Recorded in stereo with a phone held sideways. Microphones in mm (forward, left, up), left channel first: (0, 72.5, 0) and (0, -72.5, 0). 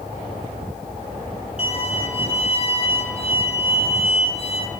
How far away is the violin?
About 1.2 m.